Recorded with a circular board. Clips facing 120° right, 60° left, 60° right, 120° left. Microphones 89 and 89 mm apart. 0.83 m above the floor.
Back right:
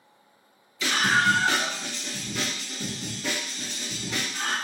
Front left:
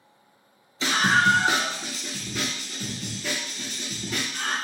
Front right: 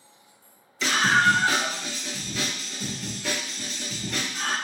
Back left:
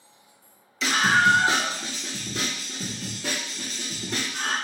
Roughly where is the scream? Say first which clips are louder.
Front left 2 dB, back left 1 dB; ahead left.